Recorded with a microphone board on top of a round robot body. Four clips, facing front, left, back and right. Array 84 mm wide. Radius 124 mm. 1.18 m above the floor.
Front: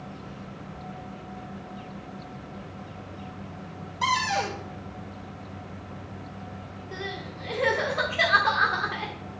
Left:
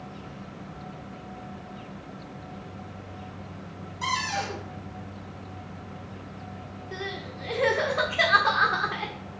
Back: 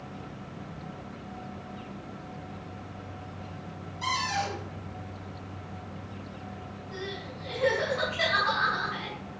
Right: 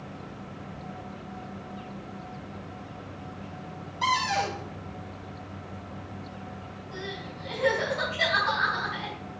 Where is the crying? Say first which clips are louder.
Left 2 dB, front 3 dB; 55° left, 1.3 m.